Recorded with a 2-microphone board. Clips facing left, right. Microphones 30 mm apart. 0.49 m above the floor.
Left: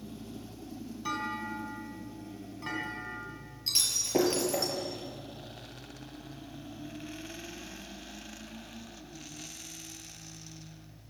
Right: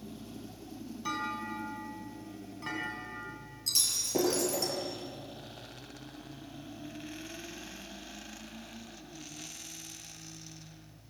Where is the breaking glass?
30° left (ahead or behind), 5.5 m.